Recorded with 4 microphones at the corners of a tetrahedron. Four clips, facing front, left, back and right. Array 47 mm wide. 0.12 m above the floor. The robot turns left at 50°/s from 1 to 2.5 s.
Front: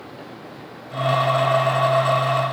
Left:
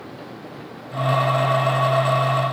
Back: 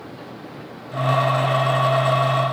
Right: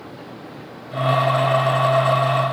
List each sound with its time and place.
Only background noise.